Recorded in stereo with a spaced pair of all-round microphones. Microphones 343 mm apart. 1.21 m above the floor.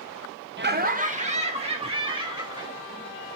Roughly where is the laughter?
Right.